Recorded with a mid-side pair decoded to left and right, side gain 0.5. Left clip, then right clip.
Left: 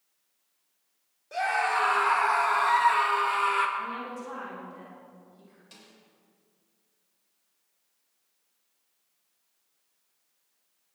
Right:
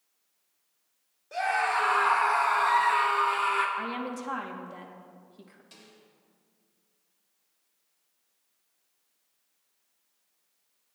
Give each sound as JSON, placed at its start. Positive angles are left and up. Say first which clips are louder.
{"t": 1.3, "sound": "a scream", "louder": "even", "azimuth_deg": 5, "distance_m": 5.0}
{"t": 3.8, "sound": "a woman speaking", "louder": "right 1 dB", "azimuth_deg": -60, "distance_m": 2.5}
{"t": 5.7, "sound": "a snare drum", "louder": "left 2 dB", "azimuth_deg": 15, "distance_m": 4.0}